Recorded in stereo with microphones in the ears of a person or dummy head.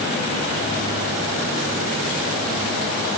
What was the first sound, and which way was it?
Only background noise.